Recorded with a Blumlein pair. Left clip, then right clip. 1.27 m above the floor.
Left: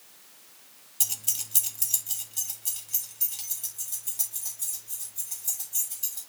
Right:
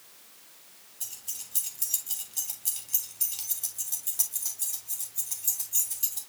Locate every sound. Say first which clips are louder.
1.0 s keys jangling: left 9 dB; 50° left, 0.8 m; by 6.2 s 20° right, 5 m